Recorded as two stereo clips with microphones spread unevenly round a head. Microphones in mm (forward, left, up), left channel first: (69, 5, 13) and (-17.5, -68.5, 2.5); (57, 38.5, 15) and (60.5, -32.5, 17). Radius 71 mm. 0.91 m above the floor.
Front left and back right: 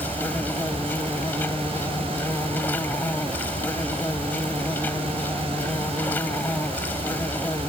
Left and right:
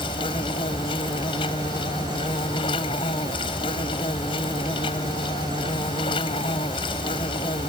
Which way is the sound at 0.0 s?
120° left.